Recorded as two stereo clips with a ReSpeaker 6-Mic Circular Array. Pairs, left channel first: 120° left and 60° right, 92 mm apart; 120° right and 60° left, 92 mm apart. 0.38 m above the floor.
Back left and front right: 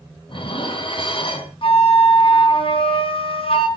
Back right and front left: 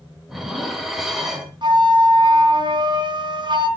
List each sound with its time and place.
0.3 s dishes clattering: 145° left, 2 m
1.6 s a flute: 100° left, 2.5 m